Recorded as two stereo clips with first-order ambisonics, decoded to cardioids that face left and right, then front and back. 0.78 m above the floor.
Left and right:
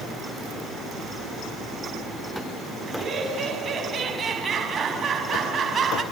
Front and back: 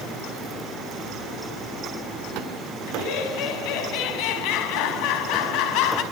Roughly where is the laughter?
Ahead right.